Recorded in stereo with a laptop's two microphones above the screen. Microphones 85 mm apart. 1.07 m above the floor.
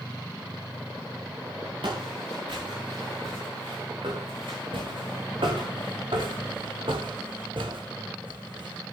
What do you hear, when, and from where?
1.8 s footsteps: 70° right (ahead or behind), 5.5 m; by 8.8 s 65° right (ahead or behind), 3 m